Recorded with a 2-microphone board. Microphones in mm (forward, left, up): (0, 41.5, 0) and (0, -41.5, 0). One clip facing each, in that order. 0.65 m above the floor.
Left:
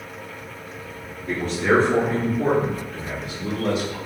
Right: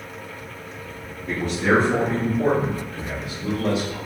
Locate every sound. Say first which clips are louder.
1.3 s a man speaking: even; 5° right (ahead or behind), 1.4 m; by 4.0 s 45° left (ahead or behind), 1.9 m